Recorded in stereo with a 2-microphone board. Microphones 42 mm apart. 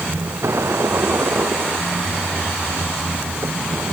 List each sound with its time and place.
0.0 s a vehicle: 90° right